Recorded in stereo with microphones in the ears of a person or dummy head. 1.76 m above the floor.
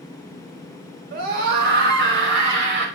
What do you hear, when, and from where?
1.1 s a scream: 50° right (ahead or behind), 4.5 m; by 2.9 s 65° right (ahead or behind), 5.5 m